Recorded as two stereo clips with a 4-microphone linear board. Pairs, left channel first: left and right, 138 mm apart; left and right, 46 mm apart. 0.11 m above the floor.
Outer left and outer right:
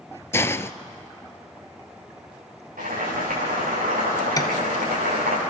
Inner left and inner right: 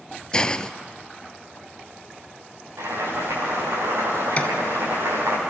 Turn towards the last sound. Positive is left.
turn(degrees=25)  # may be behind; listen again after turning